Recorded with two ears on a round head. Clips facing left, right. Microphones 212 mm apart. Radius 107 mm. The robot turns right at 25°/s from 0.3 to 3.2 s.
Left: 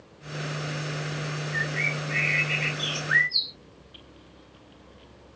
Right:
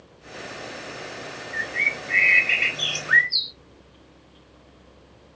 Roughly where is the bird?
Behind.